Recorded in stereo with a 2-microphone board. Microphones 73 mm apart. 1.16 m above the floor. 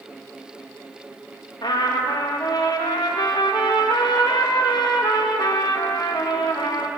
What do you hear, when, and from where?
1.6 s a trumpet: 75° left (ahead or behind), 0.6 m